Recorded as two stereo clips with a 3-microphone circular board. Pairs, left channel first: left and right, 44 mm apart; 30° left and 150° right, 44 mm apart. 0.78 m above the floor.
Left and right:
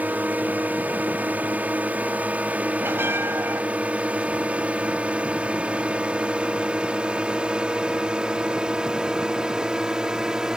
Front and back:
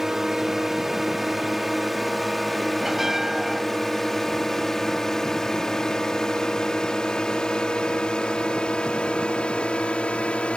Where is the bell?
70° right.